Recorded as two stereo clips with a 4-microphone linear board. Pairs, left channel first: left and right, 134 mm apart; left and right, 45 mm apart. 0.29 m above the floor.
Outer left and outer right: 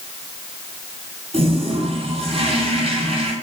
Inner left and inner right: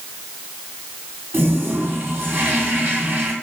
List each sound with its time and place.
1.3 s a toilet flushing: 50° right (ahead or behind), 2.5 m